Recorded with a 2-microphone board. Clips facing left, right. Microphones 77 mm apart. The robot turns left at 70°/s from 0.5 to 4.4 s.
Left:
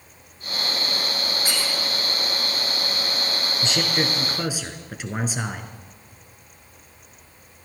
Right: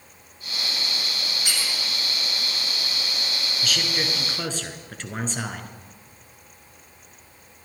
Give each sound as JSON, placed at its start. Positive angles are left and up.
{"t": 1.4, "sound": "a squeak", "side_deg": 35, "distance_m": 3.0}
{"t": 3.6, "sound": "a man speaking", "side_deg": 30, "distance_m": 1.5}